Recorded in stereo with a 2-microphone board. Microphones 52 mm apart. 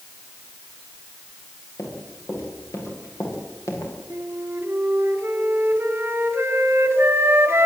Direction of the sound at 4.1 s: 45° right (ahead or behind).